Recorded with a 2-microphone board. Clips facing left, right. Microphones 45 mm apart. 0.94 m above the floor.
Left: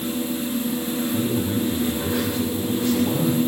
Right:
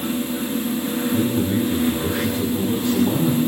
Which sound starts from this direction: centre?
A man speaking, at 1.1 s.